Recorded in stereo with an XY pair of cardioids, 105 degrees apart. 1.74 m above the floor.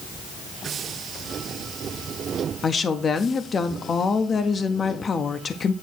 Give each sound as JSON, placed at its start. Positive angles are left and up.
{"t": 2.6, "sound": "a woman speaking", "azimuth_deg": 40, "distance_m": 0.9}